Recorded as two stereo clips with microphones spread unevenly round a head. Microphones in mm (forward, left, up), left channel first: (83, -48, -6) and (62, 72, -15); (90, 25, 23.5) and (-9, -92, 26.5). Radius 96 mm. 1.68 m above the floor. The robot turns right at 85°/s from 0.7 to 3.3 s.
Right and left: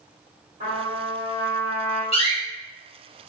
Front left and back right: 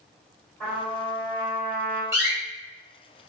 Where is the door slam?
60° right, 1.6 m; by 2.4 s 40° right, 1.6 m.